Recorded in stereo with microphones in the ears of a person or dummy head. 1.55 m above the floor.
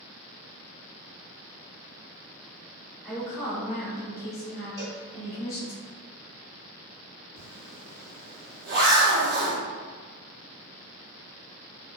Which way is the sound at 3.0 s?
10° left (ahead or behind).